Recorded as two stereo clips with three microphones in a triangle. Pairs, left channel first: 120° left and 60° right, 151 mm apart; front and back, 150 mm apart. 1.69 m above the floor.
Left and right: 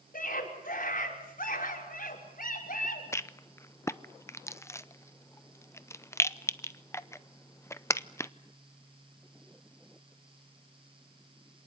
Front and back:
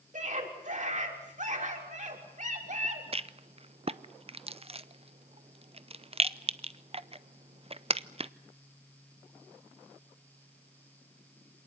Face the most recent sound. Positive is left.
turn(degrees=180)